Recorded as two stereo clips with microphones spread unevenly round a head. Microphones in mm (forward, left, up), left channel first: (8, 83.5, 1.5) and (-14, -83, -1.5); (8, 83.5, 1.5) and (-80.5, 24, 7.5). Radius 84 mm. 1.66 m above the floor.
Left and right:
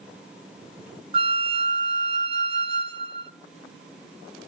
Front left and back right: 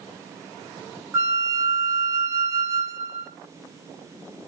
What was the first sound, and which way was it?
A flute, 120° right.